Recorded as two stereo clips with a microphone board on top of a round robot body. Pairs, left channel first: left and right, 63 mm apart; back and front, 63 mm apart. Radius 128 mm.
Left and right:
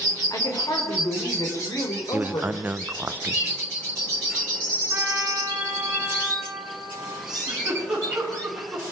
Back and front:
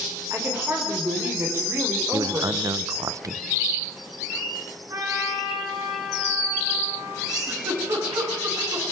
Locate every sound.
0.3 s a woman speaking: 55° left, 3.5 m
2.1 s a man speaking: 25° right, 0.8 m
4.9 s a trumpet: 25° right, 9.5 m
7.3 s a giggle: 10° right, 7.5 m